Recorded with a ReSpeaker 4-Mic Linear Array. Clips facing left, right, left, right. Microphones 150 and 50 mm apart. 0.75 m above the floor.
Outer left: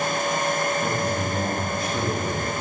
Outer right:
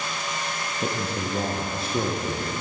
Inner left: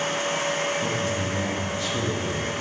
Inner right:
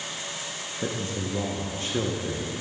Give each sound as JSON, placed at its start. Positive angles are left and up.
{"t": 0.8, "sound": "a man speaking", "side_deg": -30, "distance_m": 0.7}